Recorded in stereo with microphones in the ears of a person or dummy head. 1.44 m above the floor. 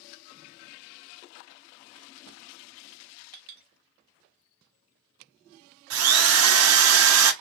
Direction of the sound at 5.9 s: 80° right.